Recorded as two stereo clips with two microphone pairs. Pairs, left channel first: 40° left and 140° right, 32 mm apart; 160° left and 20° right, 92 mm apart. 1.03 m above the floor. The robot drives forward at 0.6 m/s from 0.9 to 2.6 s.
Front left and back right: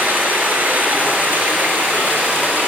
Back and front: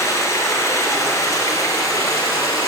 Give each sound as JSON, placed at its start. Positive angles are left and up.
{"t": 0.0, "sound": "running water", "azimuth_deg": -145, "distance_m": 5.0}